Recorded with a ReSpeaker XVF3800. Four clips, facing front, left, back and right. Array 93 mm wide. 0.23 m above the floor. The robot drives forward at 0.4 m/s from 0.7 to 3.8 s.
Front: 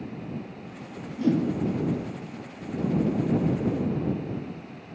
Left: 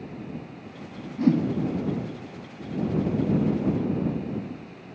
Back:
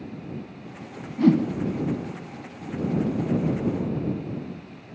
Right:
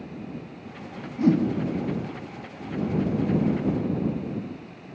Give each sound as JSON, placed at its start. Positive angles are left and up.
{"t": 1.2, "sound": "a whoosh", "azimuth_deg": -175, "distance_m": 1.7}